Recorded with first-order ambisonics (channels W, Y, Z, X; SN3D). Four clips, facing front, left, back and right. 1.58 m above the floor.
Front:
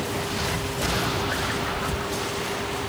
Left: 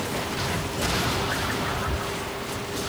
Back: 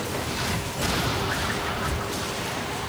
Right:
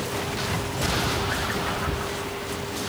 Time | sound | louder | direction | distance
1.7 | whispering | right 1 dB, front 1 dB | 125° right | 1.1 m